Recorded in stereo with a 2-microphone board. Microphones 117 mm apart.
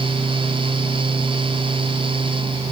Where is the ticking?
No ticking in this recording.